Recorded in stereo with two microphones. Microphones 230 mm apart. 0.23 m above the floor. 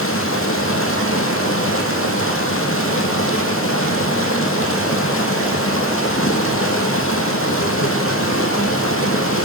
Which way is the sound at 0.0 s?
65° left (ahead or behind).